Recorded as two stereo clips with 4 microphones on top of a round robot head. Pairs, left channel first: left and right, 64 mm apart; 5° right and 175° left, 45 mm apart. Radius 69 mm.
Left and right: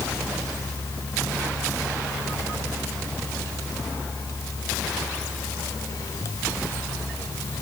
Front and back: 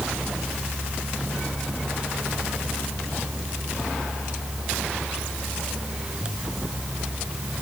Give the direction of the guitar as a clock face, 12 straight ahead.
I don't hear a guitar.